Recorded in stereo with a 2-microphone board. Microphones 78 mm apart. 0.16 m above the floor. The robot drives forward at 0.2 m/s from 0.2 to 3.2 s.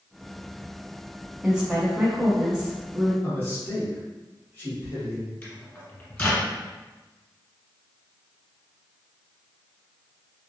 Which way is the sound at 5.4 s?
20° left (ahead or behind).